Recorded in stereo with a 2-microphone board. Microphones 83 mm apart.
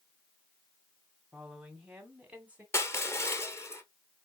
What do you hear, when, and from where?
1.3 s a woman speaking: 5° right (ahead or behind), 1.6 m; by 2.6 s 20° right (ahead or behind), 2 m
2.7 s crushing: 30° left (ahead or behind), 1.1 m